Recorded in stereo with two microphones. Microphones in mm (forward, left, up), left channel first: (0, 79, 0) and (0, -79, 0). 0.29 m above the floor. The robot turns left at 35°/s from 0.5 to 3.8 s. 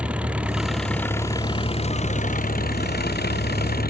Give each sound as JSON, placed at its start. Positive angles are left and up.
{"t": 0.0, "sound": "an engine running", "azimuth_deg": -175}